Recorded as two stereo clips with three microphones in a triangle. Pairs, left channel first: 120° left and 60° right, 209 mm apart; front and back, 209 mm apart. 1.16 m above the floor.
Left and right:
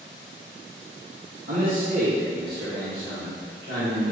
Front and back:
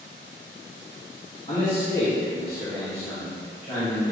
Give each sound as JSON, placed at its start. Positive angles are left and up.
{"t": 1.5, "sound": "a man speaking", "azimuth_deg": -50, "distance_m": 2.0}